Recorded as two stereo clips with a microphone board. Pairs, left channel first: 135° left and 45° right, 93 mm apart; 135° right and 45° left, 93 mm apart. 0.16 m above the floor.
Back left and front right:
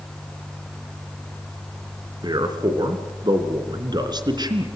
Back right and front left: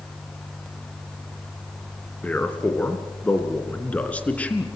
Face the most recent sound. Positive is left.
turn(degrees=-65)